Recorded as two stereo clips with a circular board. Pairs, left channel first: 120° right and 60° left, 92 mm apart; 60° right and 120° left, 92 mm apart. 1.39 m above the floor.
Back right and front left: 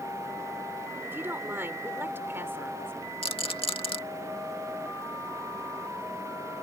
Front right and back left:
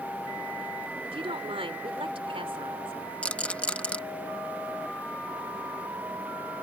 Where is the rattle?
135° right.